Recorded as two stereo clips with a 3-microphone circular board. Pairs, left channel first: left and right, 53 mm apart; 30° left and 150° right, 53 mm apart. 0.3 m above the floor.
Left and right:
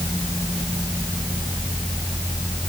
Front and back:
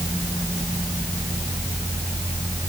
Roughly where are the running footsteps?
No running footsteps in this recording.